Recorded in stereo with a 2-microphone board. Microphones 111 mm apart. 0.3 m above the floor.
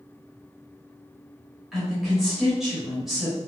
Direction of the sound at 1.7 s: 5° right (ahead or behind).